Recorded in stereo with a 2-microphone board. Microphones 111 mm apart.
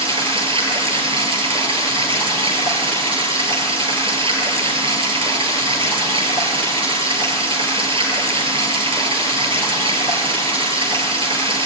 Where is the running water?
55° right (ahead or behind), 3.5 m.